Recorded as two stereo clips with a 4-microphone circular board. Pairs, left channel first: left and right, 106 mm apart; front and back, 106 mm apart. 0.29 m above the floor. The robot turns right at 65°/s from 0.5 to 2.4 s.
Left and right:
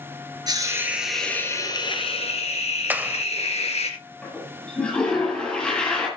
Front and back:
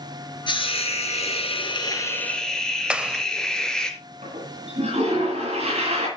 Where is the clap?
125° right, 0.8 m.